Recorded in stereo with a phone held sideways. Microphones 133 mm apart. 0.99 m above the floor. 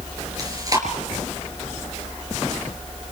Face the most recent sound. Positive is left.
turn(degrees=-30)  # may be behind; listen again after turning